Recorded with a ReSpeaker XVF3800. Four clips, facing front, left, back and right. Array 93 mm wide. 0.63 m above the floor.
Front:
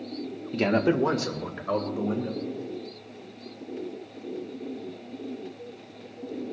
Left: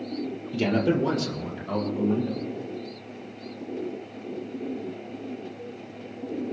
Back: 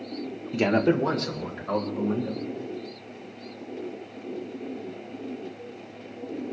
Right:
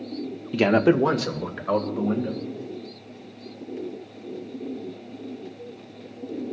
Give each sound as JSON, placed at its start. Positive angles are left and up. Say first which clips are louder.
{"t": 0.5, "sound": "a man speaking", "louder": "right 5 dB, back 1 dB", "azimuth_deg": -105, "distance_m": 0.9}